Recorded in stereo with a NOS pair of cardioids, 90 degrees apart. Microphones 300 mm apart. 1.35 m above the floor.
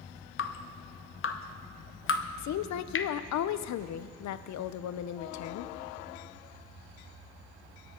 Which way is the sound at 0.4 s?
45° left.